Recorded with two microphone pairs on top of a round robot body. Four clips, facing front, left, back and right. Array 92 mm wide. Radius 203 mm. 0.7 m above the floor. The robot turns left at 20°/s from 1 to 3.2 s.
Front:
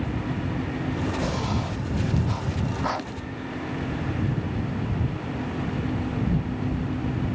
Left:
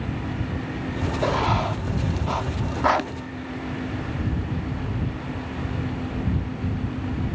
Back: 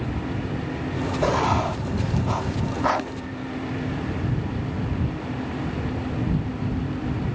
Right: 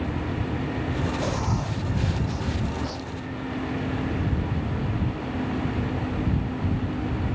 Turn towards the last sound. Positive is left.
turn(degrees=110)